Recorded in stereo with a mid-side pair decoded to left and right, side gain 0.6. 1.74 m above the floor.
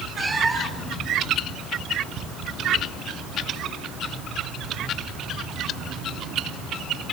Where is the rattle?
I don't hear a rattle.